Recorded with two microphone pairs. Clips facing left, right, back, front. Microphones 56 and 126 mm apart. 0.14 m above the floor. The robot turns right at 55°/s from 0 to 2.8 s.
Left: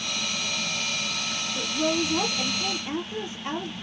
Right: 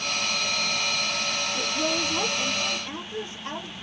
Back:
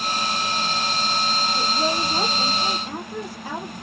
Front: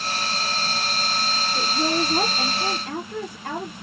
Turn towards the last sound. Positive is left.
turn(degrees=25)